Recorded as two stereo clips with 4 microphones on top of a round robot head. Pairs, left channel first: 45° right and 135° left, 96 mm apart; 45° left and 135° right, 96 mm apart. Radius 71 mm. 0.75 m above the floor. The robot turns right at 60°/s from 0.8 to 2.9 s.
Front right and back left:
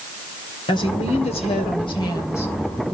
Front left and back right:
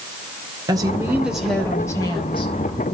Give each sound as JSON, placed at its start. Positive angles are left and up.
{"t": 0.7, "sound": "a woman speaking", "azimuth_deg": -80, "distance_m": 2.5}